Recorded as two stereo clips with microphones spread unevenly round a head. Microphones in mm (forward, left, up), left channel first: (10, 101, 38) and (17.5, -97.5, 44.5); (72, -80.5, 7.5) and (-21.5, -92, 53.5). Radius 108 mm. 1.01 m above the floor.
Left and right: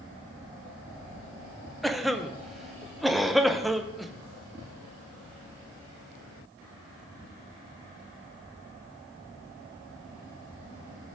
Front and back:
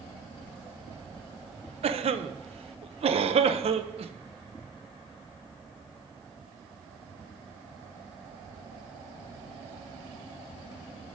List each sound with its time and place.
1.8 s a cough: straight behind, 0.8 m